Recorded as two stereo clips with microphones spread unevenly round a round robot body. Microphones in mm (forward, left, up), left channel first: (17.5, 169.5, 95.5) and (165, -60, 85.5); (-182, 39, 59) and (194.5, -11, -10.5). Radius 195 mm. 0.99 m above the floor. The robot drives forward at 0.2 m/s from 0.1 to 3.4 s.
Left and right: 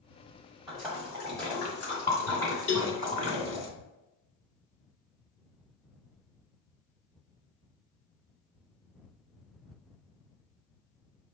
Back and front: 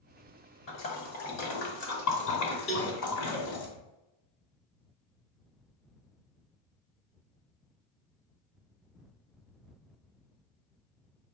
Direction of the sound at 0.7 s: 145° right.